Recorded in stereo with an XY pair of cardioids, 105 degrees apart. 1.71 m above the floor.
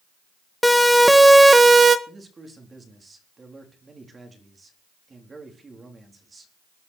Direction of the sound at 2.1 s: 25° right.